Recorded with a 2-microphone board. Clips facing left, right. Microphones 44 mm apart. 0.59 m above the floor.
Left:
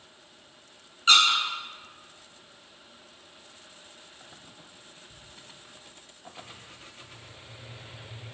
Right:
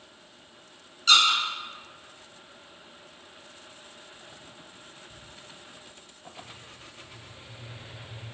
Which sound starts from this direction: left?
A squeak, at 1.1 s.